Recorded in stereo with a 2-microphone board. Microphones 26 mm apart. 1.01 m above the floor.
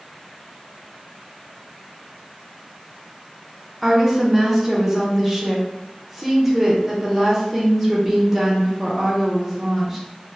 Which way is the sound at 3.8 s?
5° right (ahead or behind).